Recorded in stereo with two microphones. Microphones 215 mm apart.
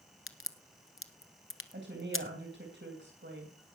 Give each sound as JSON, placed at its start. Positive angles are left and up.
{"t": 0.3, "sound": "a crack", "side_deg": 70, "distance_m": 1.0}
{"t": 1.7, "sound": "a woman speaking", "side_deg": -60, "distance_m": 2.5}